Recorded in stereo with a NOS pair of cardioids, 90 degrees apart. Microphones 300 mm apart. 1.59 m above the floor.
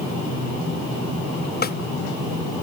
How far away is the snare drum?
About 1.8 m.